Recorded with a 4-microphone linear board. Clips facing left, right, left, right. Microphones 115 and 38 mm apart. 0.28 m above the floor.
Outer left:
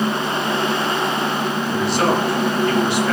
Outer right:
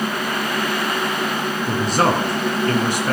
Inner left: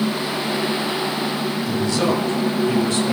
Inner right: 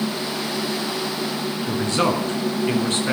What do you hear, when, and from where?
1.7 s a man speaking: 40° right (ahead or behind), 3 m